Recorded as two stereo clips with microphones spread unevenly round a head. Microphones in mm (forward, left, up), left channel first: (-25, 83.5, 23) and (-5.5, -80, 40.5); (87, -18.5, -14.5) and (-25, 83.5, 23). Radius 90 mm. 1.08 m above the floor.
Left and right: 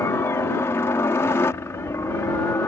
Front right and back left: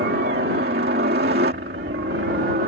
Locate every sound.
0.0 s a helicopter: 170° left